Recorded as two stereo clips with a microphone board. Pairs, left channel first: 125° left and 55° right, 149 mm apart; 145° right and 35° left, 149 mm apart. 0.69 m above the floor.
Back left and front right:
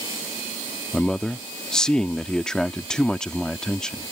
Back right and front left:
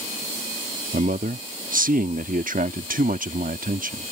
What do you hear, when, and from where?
0.9 s a man speaking: 40° left